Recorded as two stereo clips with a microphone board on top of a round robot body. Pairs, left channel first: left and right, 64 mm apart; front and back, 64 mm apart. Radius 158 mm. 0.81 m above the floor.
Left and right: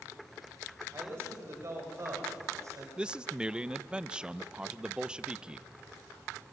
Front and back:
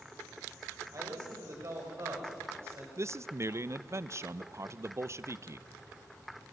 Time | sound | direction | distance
0.9 | a man speaking | 140° right | 4 m
3.0 | a man speaking | 160° right | 0.8 m